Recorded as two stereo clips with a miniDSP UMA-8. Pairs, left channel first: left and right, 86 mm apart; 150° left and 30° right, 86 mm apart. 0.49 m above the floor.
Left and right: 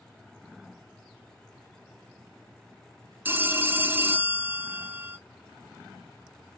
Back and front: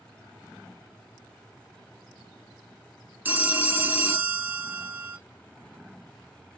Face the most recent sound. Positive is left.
turn(degrees=-60)